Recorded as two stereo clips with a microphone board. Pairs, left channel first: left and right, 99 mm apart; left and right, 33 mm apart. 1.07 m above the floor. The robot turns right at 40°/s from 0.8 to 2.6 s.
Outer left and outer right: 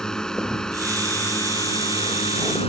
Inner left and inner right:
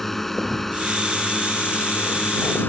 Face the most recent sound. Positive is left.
turn(degrees=80)